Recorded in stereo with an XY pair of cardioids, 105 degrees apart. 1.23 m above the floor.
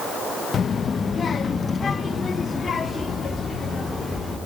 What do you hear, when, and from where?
0.5 s a child speaking: 45° left, 1.0 m; by 4.4 s 25° left, 3 m